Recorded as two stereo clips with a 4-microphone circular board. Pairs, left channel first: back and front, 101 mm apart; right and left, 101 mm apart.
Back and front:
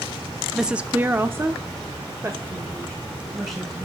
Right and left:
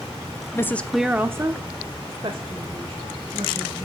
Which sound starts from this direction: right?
A woman speaking, at 0.6 s.